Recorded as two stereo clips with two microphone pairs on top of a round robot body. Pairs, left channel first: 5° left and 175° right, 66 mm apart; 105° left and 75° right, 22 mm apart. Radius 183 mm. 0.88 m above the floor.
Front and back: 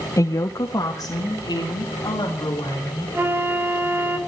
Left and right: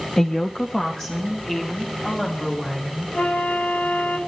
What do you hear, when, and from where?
0.2 s a woman speaking: 40° left, 0.8 m
3.1 s a flute: 125° left, 3 m